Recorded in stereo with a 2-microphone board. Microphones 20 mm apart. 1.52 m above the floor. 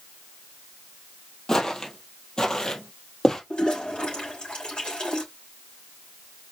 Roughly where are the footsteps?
Left.